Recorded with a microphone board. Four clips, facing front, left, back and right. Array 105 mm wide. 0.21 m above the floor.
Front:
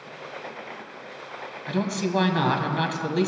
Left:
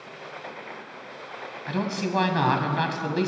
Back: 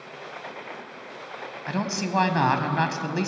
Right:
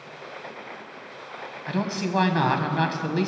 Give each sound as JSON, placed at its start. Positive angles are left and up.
{"t": 1.7, "sound": "a man speaking", "azimuth_deg": -175, "distance_m": 1.3}